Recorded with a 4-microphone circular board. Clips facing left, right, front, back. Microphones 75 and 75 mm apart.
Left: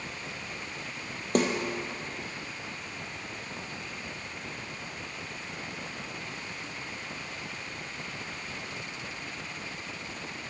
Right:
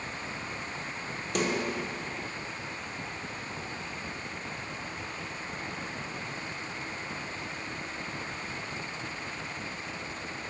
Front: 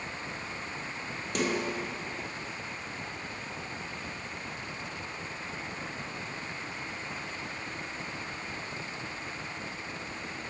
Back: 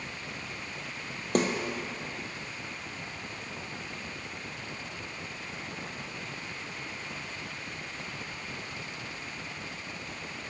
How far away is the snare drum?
About 0.9 m.